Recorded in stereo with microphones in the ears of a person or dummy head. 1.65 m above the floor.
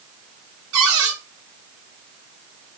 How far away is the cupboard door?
About 3.5 m.